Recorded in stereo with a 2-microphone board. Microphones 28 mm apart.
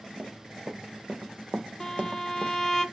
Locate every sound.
0.2 s running footsteps: 45° right (ahead or behind), 1.5 m; by 2.5 s 40° right (ahead or behind), 0.9 m
1.8 s a violin: 10° left (ahead or behind), 1.1 m